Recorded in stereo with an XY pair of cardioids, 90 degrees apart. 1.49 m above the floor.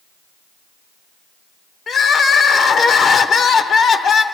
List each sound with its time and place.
1.9 s crying: 60° left, 0.8 m